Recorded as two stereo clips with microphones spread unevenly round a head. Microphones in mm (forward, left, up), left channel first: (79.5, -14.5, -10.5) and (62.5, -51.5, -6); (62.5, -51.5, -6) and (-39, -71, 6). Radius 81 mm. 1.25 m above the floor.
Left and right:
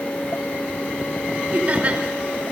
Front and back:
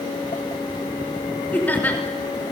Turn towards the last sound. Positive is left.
turn(degrees=-60)